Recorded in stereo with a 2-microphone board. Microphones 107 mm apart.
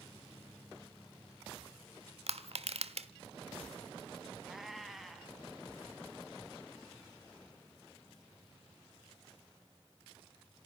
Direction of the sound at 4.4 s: Centre (ahead or behind).